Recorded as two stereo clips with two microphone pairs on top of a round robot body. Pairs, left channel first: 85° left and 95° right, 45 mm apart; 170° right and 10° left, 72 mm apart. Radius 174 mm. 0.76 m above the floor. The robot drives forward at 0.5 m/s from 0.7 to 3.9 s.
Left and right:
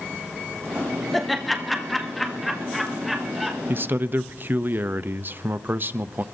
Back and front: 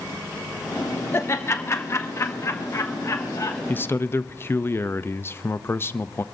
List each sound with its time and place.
1.1 s laughter: straight behind, 1.5 m
3.7 s a man speaking: 120° right, 0.7 m; by 6.2 s 125° right, 0.7 m